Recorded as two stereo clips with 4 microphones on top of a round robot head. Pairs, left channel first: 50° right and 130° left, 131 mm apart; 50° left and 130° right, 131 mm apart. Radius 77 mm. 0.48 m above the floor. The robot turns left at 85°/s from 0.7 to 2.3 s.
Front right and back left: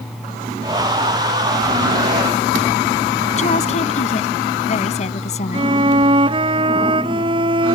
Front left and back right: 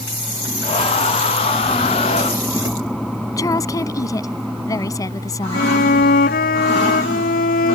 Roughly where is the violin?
Left.